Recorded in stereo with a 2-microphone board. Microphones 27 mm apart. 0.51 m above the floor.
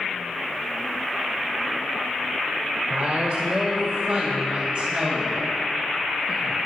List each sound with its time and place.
2.9 s a woman speaking: 60° right (ahead or behind), 1.8 m; by 6.6 s 30° right (ahead or behind), 5 m